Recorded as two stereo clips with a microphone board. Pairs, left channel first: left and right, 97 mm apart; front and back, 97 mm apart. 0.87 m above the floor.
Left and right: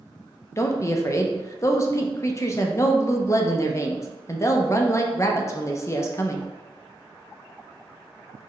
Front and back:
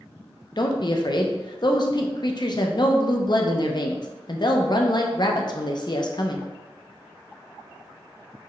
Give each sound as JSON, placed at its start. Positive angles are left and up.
{"t": 0.6, "sound": "a woman speaking", "azimuth_deg": 35, "distance_m": 0.6}